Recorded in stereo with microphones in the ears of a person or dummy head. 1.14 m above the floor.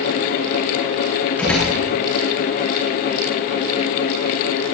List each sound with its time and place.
1.4 s a door slam: 5° left (ahead or behind), 8.5 m